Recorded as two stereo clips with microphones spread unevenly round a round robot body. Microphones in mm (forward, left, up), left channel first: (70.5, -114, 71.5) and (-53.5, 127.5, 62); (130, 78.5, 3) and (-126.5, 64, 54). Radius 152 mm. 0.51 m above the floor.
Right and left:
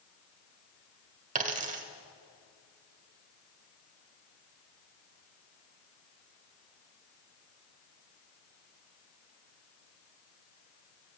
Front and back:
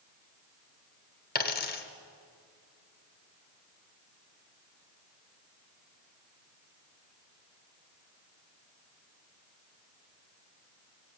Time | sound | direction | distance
1.4 | a dropped coin | 55° left | 1.2 m